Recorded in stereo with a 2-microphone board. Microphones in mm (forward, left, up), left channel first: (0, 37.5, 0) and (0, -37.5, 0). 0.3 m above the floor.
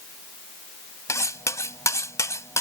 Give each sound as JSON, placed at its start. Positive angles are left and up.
{"t": 1.1, "sound": "cutlery clinking", "side_deg": 45}